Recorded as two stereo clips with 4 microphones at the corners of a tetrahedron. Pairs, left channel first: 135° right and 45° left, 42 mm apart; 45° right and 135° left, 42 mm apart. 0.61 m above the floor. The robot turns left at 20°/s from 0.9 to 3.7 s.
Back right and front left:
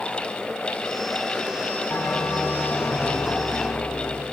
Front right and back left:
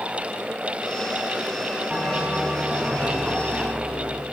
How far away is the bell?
About 4.5 m.